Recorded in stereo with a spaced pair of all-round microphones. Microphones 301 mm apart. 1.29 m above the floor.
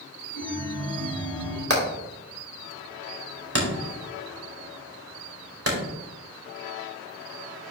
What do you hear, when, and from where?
0.3 s a chime: 35° left (ahead or behind), 2.5 m
1.7 s hammering: 50° right (ahead or behind), 2.5 m